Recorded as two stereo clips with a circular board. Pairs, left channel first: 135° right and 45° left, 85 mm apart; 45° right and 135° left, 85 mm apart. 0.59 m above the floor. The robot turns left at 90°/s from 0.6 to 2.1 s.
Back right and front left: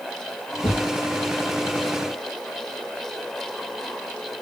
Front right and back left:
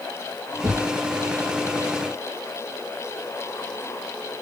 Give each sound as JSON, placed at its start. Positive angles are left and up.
{"t": 0.6, "sound": "a thud", "azimuth_deg": -175, "distance_m": 2.0}